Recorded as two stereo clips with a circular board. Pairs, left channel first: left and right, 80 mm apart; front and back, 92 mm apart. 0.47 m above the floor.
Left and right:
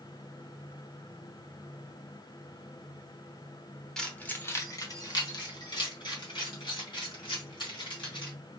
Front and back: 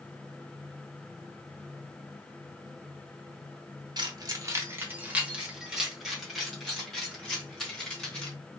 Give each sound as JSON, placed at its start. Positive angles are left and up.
{"t": 4.0, "sound": "keys jangling", "azimuth_deg": 170, "distance_m": 1.0}